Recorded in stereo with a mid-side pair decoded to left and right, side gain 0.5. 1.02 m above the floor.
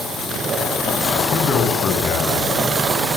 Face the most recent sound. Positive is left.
turn(degrees=45)